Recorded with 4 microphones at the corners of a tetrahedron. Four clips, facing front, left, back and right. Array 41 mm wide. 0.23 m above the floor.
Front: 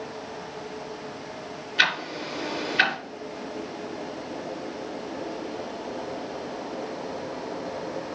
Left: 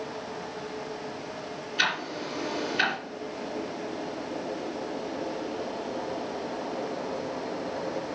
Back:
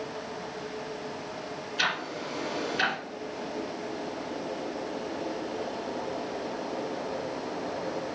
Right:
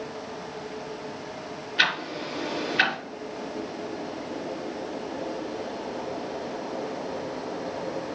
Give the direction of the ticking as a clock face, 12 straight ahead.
1 o'clock.